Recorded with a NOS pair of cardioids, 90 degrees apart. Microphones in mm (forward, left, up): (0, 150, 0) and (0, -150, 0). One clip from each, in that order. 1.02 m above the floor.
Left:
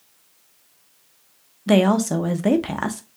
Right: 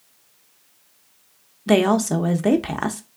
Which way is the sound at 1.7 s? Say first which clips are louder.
Even; 5° right.